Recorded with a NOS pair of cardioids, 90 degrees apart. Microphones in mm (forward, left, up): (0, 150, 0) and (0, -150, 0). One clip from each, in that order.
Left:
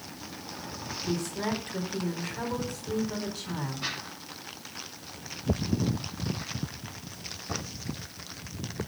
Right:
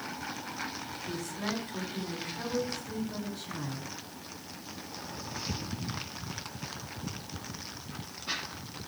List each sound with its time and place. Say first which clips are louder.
1.0 s a woman speaking: left 5 dB; 65° left, 4 m